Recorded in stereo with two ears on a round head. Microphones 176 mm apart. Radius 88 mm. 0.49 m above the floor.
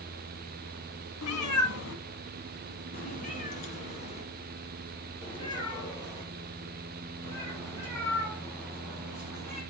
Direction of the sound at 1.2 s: 80° left.